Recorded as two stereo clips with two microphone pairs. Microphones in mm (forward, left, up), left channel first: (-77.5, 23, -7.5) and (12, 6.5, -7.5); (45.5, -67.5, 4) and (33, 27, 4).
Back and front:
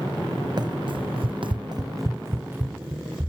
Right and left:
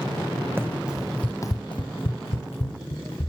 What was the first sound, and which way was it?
Running footsteps, 30° left.